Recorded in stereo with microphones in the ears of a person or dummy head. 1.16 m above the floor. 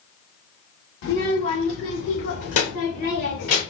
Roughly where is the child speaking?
Left.